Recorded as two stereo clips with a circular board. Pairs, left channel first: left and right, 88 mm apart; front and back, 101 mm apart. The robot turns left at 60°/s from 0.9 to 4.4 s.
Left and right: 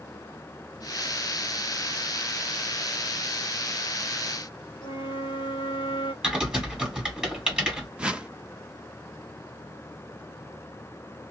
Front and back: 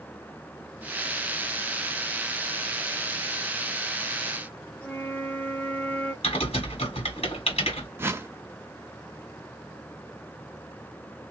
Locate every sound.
4.8 s a flute: 75° left, 1.2 m
6.2 s typing on a keyboard: 10° right, 1.9 m
8.0 s a whoosh: 150° right, 0.6 m